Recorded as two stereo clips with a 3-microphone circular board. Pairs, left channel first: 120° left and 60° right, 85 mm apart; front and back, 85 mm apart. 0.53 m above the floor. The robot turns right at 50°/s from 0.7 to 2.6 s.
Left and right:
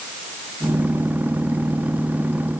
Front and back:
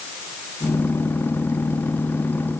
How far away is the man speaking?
I don't hear a man speaking.